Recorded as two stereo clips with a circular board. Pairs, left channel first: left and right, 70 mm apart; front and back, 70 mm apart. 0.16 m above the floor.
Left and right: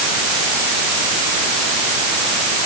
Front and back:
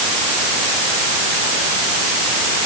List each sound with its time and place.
Only background noise.